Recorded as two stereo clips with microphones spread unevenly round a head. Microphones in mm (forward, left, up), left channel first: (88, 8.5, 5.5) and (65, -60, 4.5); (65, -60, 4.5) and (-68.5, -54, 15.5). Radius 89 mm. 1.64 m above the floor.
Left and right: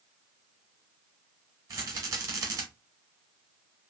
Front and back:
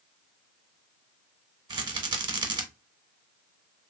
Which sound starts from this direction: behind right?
A rattle, at 1.7 s.